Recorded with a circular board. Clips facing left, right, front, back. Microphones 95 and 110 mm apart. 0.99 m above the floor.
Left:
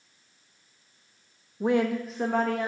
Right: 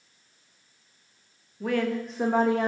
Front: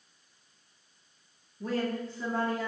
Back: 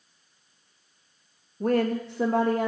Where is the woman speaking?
150° left, 0.7 m; by 2.7 s 150° right, 0.8 m.